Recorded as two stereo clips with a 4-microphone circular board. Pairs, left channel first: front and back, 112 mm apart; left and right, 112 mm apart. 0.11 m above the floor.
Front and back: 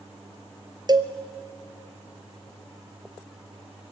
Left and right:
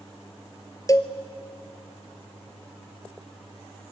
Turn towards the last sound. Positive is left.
turn(degrees=140)